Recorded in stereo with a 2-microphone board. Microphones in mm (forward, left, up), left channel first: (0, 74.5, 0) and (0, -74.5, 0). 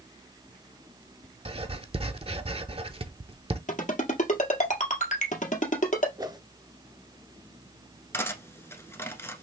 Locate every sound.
1.4 s writing: 40° right (ahead or behind), 0.5 m
3.7 s a ringtone: 55° left (ahead or behind), 1.6 m
6.2 s a whoosh: 25° right (ahead or behind), 0.5 m
8.1 s cutlery clinking: 15° left (ahead or behind), 0.9 m